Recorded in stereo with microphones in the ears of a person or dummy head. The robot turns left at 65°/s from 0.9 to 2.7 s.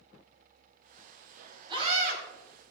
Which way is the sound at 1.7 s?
25° right.